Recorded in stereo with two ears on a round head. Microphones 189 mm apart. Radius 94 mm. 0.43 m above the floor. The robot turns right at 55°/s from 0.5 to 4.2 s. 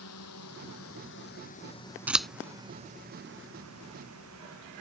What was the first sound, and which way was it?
A drone, 85° left.